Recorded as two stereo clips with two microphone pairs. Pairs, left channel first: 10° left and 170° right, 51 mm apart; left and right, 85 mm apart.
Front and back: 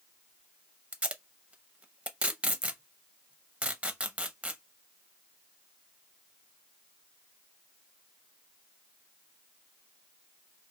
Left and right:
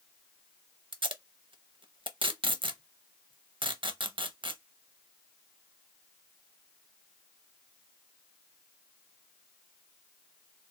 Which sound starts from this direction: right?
Tape being pulled, at 0.9 s.